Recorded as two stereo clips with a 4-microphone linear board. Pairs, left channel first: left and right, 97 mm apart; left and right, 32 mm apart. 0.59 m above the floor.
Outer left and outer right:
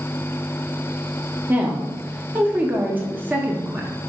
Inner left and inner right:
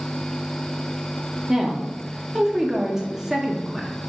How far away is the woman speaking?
About 0.6 m.